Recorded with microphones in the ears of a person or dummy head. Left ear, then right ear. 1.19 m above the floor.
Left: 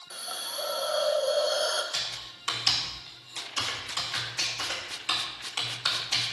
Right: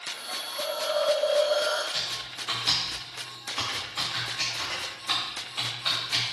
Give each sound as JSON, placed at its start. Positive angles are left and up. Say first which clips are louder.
{"t": 0.1, "sound": "a hiss", "louder": "left 1 dB", "side_deg": 85, "distance_m": 1.4}
{"t": 1.9, "sound": "typing on a keyboard", "louder": "right 2 dB", "side_deg": 50, "distance_m": 3.0}